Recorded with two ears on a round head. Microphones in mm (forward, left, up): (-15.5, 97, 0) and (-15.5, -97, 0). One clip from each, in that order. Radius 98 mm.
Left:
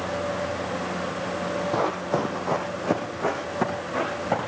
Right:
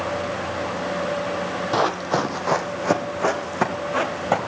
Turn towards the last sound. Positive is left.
turn(degrees=-45)  # may be behind; listen again after turning